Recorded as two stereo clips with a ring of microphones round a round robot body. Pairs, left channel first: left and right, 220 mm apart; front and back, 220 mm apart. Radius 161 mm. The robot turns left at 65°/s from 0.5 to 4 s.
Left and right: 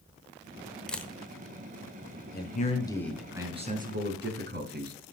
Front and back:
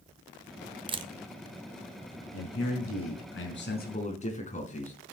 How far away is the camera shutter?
About 1.0 m.